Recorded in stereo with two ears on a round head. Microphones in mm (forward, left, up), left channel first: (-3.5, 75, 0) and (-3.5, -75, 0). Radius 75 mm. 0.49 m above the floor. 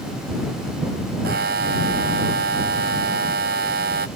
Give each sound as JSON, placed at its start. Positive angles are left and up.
{"t": 1.2, "sound": "a buzzer", "side_deg": -65}